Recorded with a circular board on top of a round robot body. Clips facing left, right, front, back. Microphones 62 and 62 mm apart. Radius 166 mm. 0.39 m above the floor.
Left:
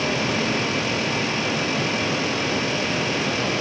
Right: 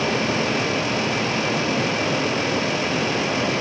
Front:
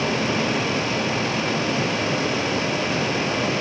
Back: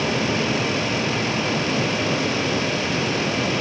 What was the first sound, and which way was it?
Only background noise.